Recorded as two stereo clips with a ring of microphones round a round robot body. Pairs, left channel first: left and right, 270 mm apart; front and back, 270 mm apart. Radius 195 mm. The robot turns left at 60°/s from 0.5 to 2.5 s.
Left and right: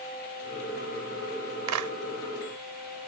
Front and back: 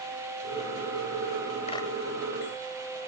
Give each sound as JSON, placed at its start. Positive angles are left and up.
{"t": 1.7, "sound": "a clap", "azimuth_deg": -75}